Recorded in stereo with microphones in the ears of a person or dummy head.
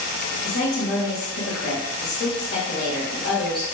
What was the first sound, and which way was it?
A woman speaking, 50° left (ahead or behind).